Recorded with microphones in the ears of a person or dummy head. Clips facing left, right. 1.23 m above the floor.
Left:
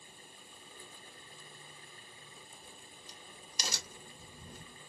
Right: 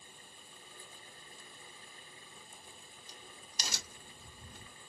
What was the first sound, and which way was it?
A crack, 70° left (ahead or behind).